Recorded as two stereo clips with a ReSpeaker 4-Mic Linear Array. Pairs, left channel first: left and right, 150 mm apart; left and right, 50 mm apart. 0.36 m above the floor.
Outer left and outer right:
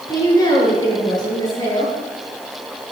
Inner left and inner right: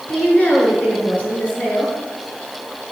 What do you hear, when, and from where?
0.1 s a woman speaking: 30° left (ahead or behind), 6 m